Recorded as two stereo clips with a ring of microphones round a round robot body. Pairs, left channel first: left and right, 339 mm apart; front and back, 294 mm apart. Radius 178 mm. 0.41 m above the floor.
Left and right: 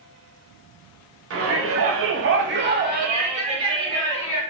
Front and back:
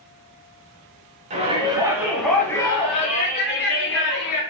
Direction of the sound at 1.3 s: 120° right.